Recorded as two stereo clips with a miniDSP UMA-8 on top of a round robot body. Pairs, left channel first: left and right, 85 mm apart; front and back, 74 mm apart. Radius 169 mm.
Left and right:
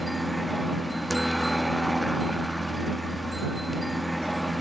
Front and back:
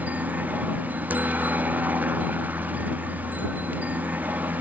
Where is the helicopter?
Straight behind.